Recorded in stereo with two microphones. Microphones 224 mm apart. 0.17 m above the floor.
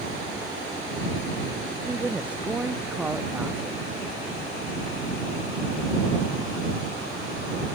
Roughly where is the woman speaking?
Centre.